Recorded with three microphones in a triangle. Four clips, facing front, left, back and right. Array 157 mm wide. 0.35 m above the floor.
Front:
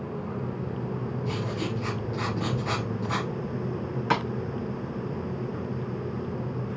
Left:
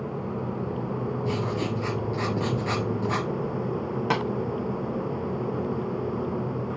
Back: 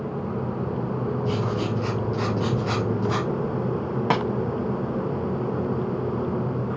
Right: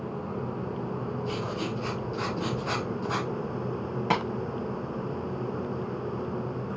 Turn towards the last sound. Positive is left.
turn(degrees=170)